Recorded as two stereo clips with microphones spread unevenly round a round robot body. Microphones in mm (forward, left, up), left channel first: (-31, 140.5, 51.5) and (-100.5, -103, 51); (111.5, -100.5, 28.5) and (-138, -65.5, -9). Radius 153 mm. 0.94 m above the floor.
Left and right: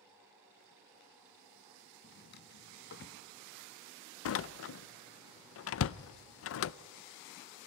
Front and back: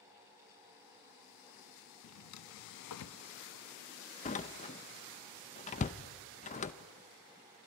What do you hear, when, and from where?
2.0 s a drawer: 15° left, 0.6 m
4.2 s a door slam: 60° left, 0.6 m